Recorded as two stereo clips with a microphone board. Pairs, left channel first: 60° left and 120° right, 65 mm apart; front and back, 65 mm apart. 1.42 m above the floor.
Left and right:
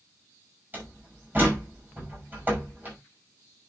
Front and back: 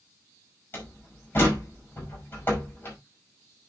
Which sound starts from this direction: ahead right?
A door slam, at 0.7 s.